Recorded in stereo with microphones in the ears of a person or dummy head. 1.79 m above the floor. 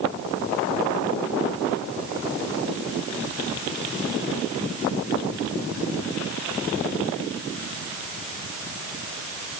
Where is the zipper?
I don't hear a zipper.